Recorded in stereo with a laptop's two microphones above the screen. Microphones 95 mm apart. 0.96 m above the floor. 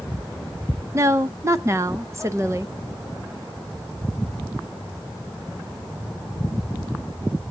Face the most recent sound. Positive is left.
turn(degrees=-30)  # may be behind; listen again after turning